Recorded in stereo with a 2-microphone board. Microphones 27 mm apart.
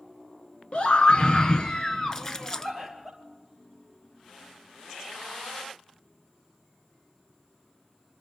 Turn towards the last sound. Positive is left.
turn(degrees=15)  # may be behind; listen again after turning